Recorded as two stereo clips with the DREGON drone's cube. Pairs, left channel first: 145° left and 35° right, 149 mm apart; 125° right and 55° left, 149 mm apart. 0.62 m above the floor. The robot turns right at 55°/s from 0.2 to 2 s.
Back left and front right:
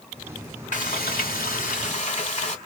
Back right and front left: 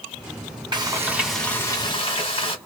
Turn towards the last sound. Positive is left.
turn(degrees=-175)